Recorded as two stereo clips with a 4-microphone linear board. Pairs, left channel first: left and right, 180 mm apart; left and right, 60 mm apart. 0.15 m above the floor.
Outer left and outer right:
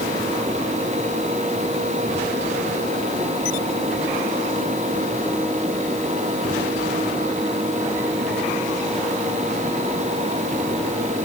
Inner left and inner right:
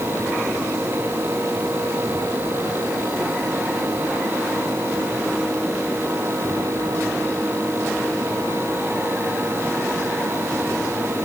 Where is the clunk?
No clunk in this recording.